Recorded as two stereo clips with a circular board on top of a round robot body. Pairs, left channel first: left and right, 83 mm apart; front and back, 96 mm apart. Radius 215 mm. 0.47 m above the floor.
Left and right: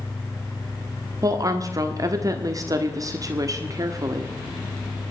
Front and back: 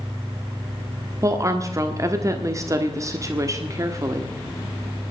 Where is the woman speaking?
130° right, 1.6 m.